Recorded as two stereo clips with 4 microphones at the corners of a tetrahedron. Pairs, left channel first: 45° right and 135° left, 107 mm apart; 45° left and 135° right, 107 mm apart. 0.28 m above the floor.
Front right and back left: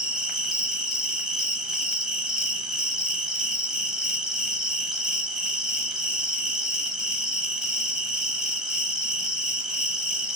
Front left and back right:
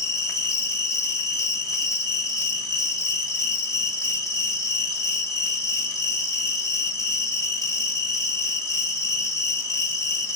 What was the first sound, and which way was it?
An insect, 55° left.